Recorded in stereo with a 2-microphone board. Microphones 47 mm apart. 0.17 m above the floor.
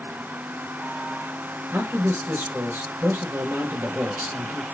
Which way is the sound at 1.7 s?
55° right (ahead or behind).